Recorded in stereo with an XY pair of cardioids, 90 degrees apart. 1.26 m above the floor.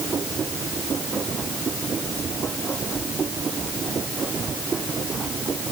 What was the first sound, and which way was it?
A machine running, 40° right.